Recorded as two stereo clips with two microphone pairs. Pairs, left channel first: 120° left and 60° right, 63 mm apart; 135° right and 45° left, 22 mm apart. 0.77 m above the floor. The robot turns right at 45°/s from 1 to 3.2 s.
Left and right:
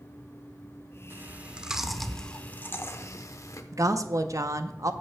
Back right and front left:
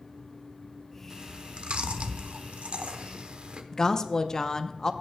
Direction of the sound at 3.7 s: 70° right.